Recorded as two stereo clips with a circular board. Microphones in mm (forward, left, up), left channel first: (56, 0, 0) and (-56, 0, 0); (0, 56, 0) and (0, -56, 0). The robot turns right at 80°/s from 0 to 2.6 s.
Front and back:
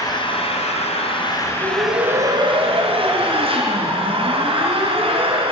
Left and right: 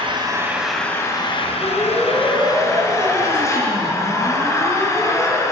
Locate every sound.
0.0 s an engine running: 55° right, 4 m; by 5.5 s 150° left, 4 m
1.6 s a siren: 150° left, 4 m; by 5.4 s 160° right, 5 m